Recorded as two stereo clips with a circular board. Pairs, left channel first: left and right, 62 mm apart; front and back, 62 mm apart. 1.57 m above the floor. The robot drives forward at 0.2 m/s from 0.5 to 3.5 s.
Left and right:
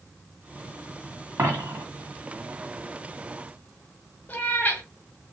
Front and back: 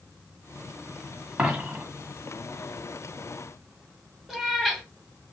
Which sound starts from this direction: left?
A cat meowing, at 4.3 s.